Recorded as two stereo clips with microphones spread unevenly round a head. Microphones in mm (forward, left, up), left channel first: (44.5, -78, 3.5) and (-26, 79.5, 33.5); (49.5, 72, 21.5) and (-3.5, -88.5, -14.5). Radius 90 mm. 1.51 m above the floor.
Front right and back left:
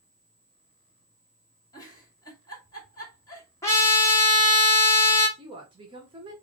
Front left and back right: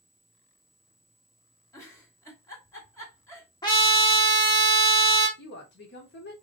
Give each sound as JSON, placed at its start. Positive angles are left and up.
{"t": 1.7, "sound": "a giggle", "azimuth_deg": 10, "distance_m": 1.9}
{"t": 3.6, "sound": "a trumpet", "azimuth_deg": 10, "distance_m": 1.9}
{"t": 5.4, "sound": "a woman speaking", "azimuth_deg": 50, "distance_m": 1.2}